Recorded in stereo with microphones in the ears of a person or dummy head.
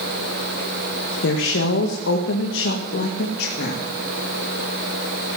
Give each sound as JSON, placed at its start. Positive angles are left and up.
{"t": 1.2, "sound": "a woman speaking", "side_deg": 70, "distance_m": 1.6}